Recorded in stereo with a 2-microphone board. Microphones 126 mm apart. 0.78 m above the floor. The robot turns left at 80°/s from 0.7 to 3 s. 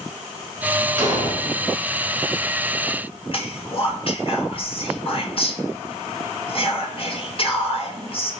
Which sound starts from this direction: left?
Whispering, at 3.3 s.